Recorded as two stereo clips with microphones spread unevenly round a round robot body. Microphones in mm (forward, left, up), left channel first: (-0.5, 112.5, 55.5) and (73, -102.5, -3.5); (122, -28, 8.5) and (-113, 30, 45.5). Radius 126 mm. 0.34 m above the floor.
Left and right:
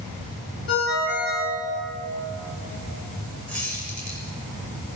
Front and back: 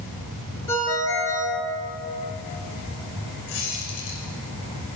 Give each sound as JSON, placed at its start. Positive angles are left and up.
{"t": 0.7, "sound": "a ringtone", "azimuth_deg": 65, "distance_m": 3.5}
{"t": 3.5, "sound": "a squeak", "azimuth_deg": 25, "distance_m": 6.5}